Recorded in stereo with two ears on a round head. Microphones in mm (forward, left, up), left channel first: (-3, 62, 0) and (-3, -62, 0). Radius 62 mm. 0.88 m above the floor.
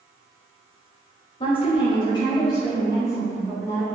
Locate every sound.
1.4 s a woman speaking: 40° left (ahead or behind), 1.3 m; by 3.9 s 20° left (ahead or behind), 2.5 m